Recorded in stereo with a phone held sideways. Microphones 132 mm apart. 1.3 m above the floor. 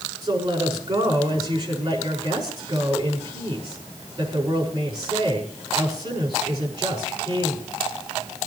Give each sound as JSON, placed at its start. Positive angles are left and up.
{"t": 0.2, "sound": "a woman speaking", "side_deg": -30, "distance_m": 6.0}